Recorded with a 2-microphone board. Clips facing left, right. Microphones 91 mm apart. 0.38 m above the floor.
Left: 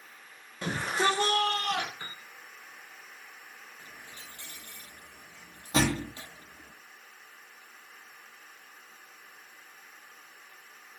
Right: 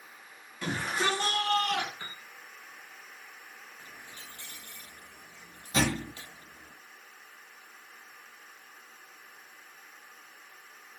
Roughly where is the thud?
Left.